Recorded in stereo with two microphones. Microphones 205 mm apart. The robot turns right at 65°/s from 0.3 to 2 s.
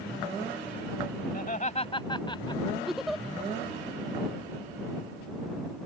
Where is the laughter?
45° left (ahead or behind); by 3.0 s 25° left (ahead or behind).